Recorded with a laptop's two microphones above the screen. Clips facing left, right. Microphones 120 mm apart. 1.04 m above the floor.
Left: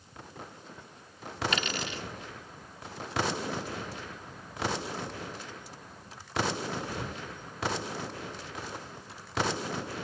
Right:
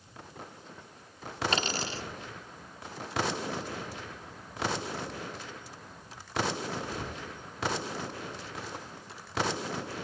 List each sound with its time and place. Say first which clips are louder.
1.5 s a dropped coin: right 2 dB; 35° right (ahead or behind)